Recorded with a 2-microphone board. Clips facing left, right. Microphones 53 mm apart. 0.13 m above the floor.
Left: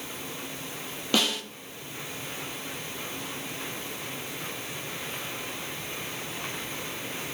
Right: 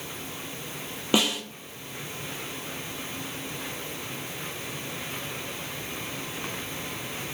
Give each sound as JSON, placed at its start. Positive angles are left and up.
{"t": 1.1, "sound": "a snare drum", "side_deg": -15, "distance_m": 0.8}